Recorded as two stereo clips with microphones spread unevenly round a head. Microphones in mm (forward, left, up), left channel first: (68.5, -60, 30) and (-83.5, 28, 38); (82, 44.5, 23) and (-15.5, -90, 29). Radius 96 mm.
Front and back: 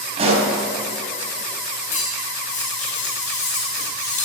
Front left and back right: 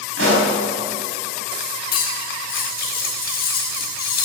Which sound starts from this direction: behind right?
A pop, at 0.2 s.